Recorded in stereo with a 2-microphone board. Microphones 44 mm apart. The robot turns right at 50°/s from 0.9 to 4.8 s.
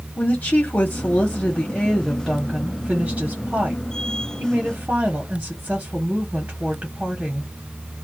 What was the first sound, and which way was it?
A woman speaking, 120° left.